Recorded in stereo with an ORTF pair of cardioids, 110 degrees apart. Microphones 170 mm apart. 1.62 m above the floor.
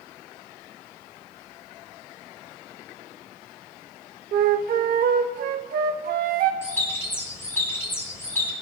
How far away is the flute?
About 0.8 m.